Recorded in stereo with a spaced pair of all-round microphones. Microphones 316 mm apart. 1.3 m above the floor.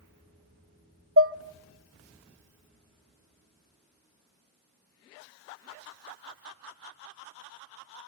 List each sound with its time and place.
1.2 s dishes clattering: 45° right (ahead or behind), 0.6 m